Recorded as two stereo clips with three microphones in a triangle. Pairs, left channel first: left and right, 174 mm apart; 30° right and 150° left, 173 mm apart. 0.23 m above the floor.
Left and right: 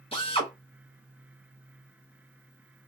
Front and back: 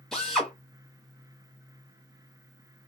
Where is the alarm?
I don't hear an alarm.